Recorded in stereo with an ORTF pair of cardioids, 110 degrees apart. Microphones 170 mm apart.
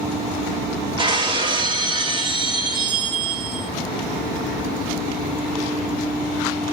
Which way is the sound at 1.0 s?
30° right.